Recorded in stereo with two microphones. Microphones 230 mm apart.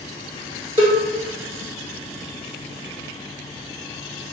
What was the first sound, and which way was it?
A cowbell, 25° right (ahead or behind).